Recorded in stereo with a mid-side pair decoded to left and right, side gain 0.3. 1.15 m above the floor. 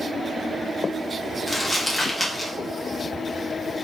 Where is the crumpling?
15° left, 1.8 m.